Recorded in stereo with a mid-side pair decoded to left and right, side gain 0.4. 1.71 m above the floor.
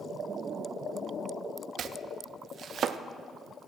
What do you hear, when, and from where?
1.8 s chopping: 60° right, 0.5 m